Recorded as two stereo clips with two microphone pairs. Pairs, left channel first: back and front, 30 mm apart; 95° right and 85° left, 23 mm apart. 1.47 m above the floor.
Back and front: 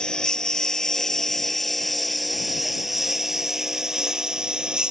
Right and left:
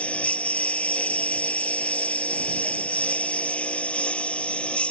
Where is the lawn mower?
115° right; by 4.9 s 65° right.